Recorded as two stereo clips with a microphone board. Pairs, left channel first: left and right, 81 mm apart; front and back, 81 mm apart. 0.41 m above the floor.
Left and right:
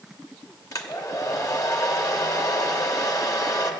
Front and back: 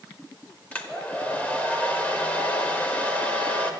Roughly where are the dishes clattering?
I don't hear dishes clattering.